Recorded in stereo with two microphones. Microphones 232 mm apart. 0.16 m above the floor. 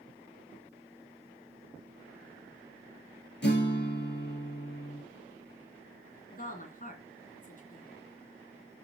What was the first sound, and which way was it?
A guitar, 45° left (ahead or behind).